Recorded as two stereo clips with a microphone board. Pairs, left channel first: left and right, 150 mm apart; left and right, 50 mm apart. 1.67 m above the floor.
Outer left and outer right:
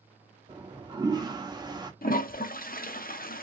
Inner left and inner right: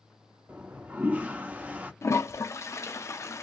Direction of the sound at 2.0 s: 75° left (ahead or behind).